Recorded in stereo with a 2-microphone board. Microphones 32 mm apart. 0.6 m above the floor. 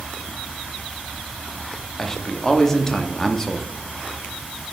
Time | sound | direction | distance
2.0 | a man speaking | 15° left (ahead or behind) | 0.7 m